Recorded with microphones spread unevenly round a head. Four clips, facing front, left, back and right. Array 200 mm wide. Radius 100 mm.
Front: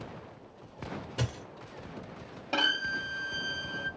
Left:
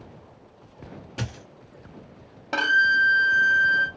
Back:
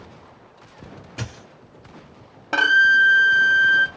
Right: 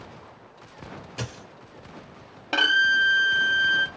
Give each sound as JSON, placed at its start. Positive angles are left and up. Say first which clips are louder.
{"t": 1.2, "sound": "a dropped coin", "louder": "left 2 dB, back 2 dB", "azimuth_deg": 135, "distance_m": 2.0}
{"t": 2.5, "sound": "a violin", "louder": "left 1 dB, back 15 dB", "azimuth_deg": 180, "distance_m": 0.7}